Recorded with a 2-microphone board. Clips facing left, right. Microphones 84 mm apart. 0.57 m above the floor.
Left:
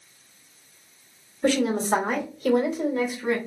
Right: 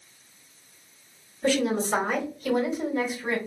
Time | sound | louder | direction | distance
1.4 | a woman speaking | left 2 dB | 60° left (ahead or behind) | 1.9 m